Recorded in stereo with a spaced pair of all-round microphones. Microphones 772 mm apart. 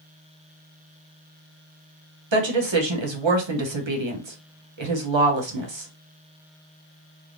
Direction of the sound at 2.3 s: 40° right (ahead or behind).